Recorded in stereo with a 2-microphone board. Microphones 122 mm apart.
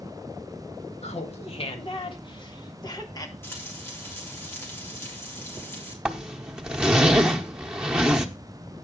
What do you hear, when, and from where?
1.0 s laughter: 60° left (ahead or behind), 1.9 m; by 3.3 s 30° left (ahead or behind), 2.5 m
3.4 s frying: 20° left (ahead or behind), 3.5 m
6.0 s a zipper: 10° right (ahead or behind), 1.1 m